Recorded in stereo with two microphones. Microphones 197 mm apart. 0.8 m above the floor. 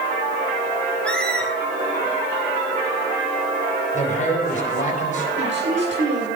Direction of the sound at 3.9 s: 40° left (ahead or behind).